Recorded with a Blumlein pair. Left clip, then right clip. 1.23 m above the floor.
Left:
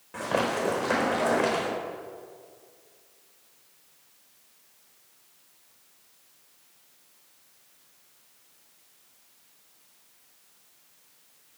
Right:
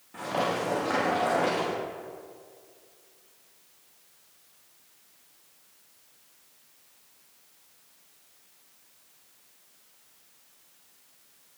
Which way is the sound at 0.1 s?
55° left.